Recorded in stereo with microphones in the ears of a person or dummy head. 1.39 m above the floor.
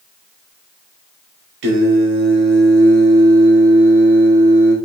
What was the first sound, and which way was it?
Singing, 70° right (ahead or behind).